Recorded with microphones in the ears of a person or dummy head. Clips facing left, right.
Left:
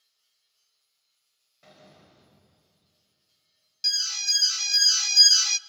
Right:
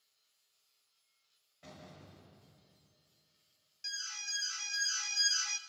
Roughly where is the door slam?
Centre.